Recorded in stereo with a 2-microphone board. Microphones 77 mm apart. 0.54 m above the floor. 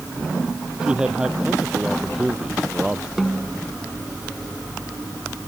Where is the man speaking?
10° right (ahead or behind).